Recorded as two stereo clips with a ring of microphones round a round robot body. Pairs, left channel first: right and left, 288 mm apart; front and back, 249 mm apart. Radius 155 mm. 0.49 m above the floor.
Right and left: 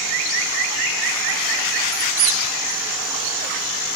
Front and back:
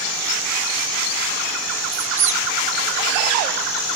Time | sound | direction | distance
1.9 | a squeak | 115° left | 0.6 m